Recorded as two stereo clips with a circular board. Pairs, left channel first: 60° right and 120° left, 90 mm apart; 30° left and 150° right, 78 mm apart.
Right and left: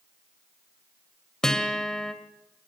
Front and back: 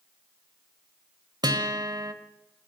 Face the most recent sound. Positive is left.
turn(degrees=-145)